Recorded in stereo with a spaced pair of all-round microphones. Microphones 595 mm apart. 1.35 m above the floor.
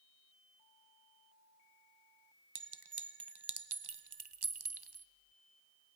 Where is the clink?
45° right (ahead or behind), 0.6 m.